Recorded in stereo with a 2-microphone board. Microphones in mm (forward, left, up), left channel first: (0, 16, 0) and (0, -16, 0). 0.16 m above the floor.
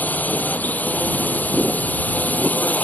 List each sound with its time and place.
0.0 s a drone: 70° left (ahead or behind); by 2.9 s 65° left (ahead or behind)